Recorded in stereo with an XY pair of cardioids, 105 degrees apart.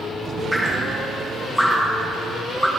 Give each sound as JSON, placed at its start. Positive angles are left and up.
{"t": 0.5, "sound": "dripping", "azimuth_deg": 5, "distance_m": 10.0}